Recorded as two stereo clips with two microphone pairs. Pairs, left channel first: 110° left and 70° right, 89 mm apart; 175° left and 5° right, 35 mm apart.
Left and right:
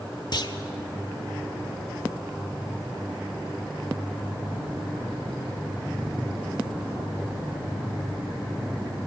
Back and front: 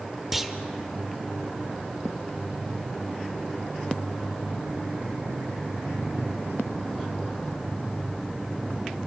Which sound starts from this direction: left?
A clunk, at 0.3 s.